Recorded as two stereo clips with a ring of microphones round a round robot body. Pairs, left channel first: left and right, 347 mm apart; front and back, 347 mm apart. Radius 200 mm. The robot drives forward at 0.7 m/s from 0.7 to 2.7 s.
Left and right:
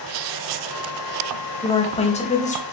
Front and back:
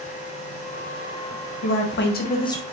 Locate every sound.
1.6 s a woman speaking: 20° left, 1.3 m; by 2.6 s 70° left, 1.0 m